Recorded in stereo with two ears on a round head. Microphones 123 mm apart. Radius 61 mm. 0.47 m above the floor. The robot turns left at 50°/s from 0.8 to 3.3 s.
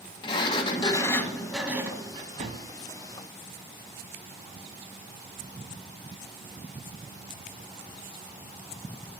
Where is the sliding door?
35° left, 1.1 m; by 2.7 s 60° right, 1.1 m.